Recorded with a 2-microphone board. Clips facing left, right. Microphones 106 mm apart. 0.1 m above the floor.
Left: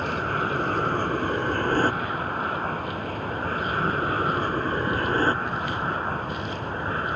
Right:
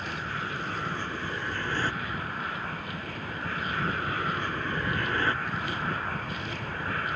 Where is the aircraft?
50° left (ahead or behind); by 7.2 s 30° left (ahead or behind).